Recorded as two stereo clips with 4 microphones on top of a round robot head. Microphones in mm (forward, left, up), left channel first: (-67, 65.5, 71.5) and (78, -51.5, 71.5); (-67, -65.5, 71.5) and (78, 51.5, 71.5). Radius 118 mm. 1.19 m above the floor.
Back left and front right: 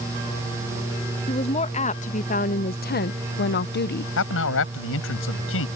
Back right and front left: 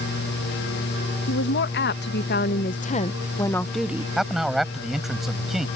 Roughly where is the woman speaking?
Behind.